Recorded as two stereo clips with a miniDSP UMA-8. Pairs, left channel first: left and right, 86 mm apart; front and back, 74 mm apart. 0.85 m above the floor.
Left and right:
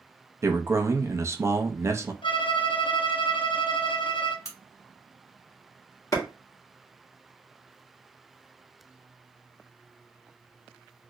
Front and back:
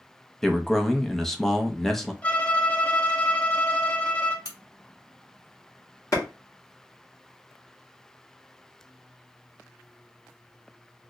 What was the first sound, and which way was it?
A man speaking, 80° right.